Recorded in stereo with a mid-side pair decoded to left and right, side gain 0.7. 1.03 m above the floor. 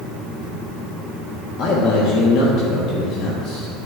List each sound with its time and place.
1.6 s a man speaking: 55° left, 1.2 m